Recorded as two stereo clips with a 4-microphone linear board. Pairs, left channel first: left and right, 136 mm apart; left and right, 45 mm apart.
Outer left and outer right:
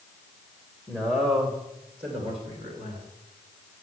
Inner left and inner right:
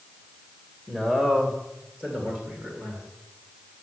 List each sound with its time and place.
0.9 s a man speaking: 20° right (ahead or behind), 1.7 m; by 3.1 s 55° right (ahead or behind), 4 m